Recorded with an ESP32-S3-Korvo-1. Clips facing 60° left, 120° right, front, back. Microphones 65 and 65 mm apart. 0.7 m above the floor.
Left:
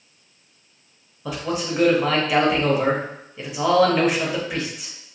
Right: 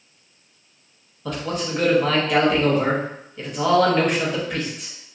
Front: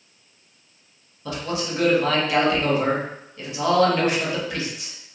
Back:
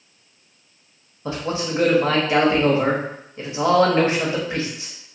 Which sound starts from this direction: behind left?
A man speaking, at 1.2 s.